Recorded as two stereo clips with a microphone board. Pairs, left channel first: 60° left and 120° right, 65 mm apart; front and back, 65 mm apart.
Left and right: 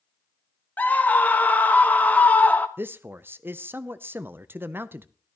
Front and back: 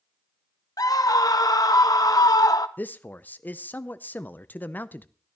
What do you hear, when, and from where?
0.8 s a scream: straight ahead, 1.0 m
2.8 s a man speaking: 65° right, 0.5 m